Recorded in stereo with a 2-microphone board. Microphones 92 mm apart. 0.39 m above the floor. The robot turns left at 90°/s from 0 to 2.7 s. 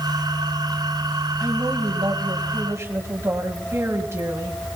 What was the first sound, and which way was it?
A woman speaking, 25° right.